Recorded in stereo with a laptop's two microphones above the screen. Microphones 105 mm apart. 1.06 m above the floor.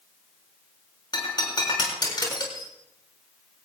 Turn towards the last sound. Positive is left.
turn(degrees=45)  # may be behind; listen again after turning